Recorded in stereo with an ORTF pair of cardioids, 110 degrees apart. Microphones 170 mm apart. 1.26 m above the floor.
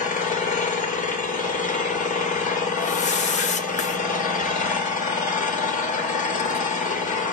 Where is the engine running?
50° left, 1.1 m.